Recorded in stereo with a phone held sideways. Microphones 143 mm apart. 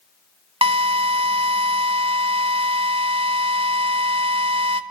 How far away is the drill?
About 1.6 m.